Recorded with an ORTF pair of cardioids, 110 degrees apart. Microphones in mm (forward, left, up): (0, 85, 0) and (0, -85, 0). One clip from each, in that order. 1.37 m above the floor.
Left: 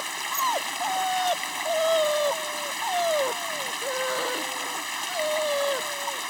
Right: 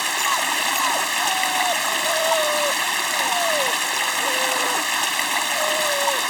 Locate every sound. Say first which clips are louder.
0.0 s running water: right 6 dB; 55° right